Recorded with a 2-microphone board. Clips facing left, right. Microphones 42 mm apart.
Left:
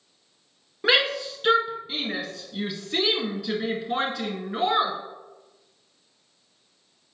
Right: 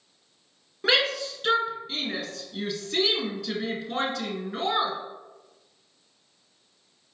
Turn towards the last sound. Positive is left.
turn(degrees=10)  # may be behind; listen again after turning